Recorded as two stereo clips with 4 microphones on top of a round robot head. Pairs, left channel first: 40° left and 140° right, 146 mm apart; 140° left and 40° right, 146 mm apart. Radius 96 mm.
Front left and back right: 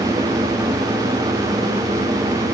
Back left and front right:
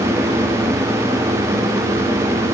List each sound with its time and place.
Only background noise.